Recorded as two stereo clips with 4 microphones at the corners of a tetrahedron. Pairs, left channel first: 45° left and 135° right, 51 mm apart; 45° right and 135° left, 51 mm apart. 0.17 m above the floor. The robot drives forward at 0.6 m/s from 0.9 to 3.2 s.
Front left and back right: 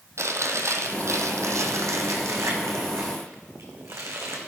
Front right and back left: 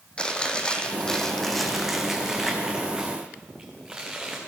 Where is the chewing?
115° right, 1.0 m; by 4.4 s 155° right, 2 m.